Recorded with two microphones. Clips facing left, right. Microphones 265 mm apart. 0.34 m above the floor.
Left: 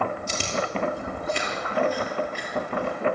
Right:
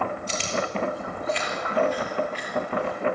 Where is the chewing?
50° left (ahead or behind), 6.5 m.